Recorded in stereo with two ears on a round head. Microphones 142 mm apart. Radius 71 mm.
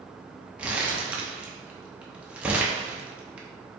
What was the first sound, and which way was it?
Crumpling, 10° right (ahead or behind).